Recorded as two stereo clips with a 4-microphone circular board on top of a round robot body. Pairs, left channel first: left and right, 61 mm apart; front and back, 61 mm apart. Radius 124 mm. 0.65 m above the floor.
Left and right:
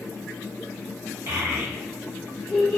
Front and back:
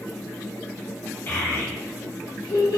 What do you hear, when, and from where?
1.3 s a child speaking: 50° right, 0.9 m; by 2.8 s 5° left, 1.1 m